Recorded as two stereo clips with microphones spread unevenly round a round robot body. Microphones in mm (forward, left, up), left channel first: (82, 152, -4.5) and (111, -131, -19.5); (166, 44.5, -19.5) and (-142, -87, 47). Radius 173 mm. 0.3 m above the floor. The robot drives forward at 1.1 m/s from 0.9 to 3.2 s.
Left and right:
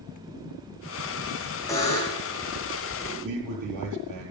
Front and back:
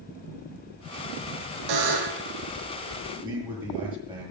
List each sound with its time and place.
1.7 s a buzzer: straight behind, 3.5 m
3.2 s a man speaking: 80° right, 8.5 m